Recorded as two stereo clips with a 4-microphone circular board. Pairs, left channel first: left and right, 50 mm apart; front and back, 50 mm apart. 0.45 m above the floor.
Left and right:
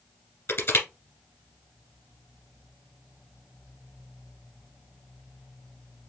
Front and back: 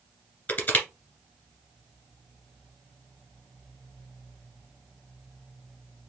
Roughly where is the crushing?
Ahead left.